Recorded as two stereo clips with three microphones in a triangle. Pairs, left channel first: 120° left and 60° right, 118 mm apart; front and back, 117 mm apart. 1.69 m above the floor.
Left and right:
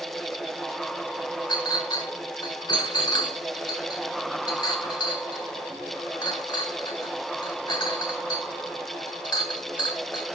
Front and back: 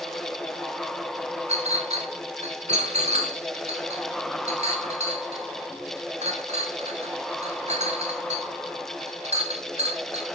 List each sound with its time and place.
1.5 s a clink: 170° left, 4 m